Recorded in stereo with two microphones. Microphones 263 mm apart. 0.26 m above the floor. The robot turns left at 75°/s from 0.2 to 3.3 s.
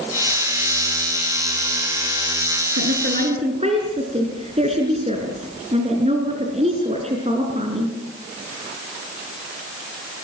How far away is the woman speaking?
About 4 m.